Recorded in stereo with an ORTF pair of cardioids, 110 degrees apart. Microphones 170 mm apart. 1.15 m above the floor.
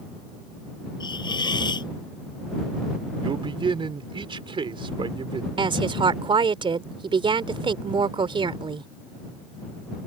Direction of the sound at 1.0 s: 25° left.